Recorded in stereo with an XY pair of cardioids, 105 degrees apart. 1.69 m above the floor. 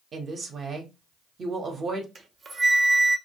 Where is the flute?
35° right, 0.7 m.